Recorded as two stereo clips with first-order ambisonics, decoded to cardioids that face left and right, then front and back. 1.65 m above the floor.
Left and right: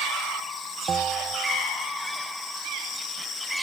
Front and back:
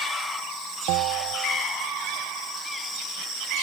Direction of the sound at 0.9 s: 160° right.